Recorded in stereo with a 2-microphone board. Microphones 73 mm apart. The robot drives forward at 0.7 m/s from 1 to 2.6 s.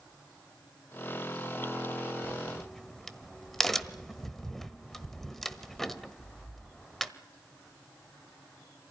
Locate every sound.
2.2 s a crack: 5° left (ahead or behind), 1.0 m